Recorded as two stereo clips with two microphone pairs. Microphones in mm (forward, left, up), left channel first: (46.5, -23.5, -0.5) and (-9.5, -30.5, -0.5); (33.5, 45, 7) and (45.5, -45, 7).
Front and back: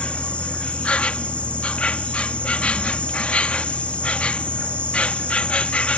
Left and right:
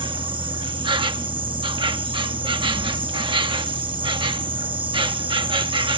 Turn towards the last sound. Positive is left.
turn(degrees=-60)